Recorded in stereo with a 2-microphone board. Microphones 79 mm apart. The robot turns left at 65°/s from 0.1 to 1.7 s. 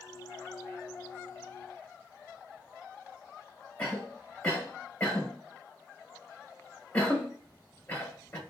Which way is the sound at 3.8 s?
20° left (ahead or behind).